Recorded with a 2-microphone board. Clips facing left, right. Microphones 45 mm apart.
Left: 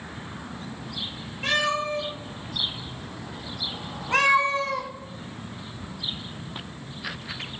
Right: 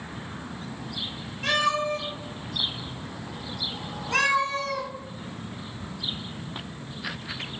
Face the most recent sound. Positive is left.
turn(degrees=35)  # may be behind; listen again after turning